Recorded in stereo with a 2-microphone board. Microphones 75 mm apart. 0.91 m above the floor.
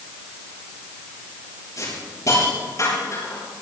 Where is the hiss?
45° left (ahead or behind), 8 m.